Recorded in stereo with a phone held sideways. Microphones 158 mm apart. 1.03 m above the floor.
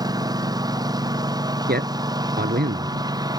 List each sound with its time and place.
0.0 s a lawn mower: 25° right (ahead or behind)
1.7 s a man speaking: 85° right